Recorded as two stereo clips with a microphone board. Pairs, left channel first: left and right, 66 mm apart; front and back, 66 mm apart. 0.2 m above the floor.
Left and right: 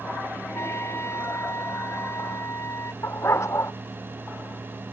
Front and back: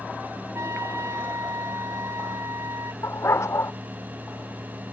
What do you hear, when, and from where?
0.5 s a trumpet: 140° left
3.0 s a dog barking: 40° left